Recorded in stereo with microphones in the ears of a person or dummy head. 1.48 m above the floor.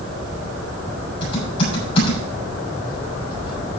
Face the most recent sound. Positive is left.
turn(degrees=35)  # may be behind; listen again after turning